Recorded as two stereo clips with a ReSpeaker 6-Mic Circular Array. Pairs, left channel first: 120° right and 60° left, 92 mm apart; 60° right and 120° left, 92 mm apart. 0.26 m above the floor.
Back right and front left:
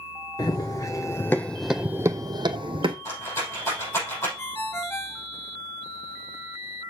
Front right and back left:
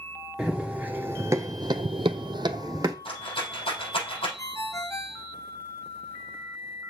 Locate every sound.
0.4 s running footsteps: 165° right, 1.1 m; by 3.0 s 70° left, 0.8 m
3.0 s a rattle: 60° right, 5 m
4.4 s a ringtone: 75° right, 0.7 m